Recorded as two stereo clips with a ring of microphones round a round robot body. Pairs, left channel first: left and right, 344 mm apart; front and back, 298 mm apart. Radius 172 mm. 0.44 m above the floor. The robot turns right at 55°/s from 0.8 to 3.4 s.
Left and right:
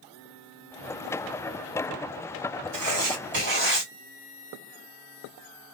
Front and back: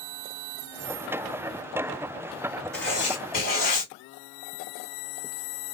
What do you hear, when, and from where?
2.7 s writing: 90° right, 2.0 m; by 3.9 s 50° right, 2.0 m